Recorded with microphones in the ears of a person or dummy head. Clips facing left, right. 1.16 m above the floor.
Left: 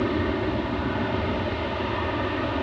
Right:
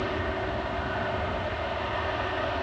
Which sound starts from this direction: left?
An aircraft, at 0.0 s.